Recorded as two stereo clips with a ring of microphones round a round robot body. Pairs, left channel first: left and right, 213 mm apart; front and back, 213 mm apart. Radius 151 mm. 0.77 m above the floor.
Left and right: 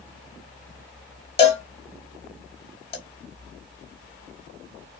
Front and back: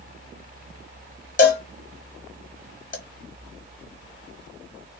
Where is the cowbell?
35° left, 1.1 m.